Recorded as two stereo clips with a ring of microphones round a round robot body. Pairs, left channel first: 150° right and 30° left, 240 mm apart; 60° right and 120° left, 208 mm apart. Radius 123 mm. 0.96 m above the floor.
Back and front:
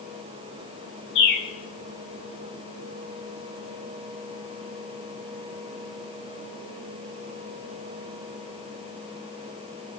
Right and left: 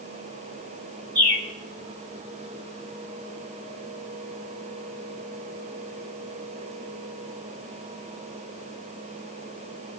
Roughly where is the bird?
Behind.